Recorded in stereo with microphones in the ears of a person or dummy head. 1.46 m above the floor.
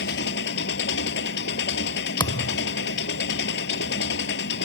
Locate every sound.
0.0 s an engine running: 70° left (ahead or behind)
2.2 s a thud: 20° left (ahead or behind)